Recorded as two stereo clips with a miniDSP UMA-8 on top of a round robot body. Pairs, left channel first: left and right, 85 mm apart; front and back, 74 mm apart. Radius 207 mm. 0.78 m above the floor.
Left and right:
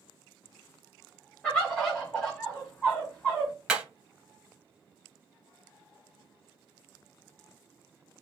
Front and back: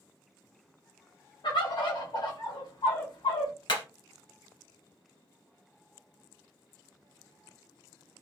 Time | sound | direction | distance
1.4 | a bird | 5° left | 1.5 m
3.7 | hammering | 5° right | 2 m